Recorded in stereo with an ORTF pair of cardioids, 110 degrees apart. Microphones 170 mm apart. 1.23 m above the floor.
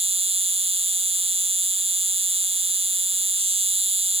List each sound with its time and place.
0.0 s an insect: 35° right